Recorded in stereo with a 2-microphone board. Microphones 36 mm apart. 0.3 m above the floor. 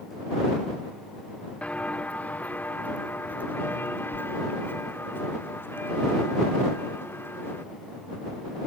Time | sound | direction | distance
1.6 | footsteps | 40° left (ahead or behind) | ?